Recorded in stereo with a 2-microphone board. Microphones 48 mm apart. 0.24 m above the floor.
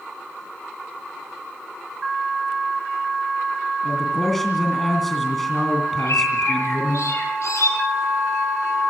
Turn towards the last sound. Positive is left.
turn(degrees=75)  # may be behind; listen again after turning